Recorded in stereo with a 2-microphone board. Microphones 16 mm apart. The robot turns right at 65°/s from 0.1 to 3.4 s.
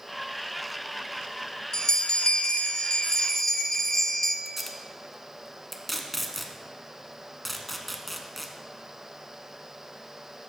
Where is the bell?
45° left, 1.0 m; by 4.3 s 150° left, 1.0 m.